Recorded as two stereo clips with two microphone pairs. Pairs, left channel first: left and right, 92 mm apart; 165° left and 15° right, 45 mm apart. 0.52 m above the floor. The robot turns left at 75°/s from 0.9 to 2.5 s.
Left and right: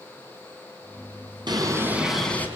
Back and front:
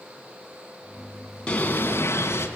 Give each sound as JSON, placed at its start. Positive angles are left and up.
{"t": 1.5, "sound": "a bird", "azimuth_deg": -125, "distance_m": 4.5}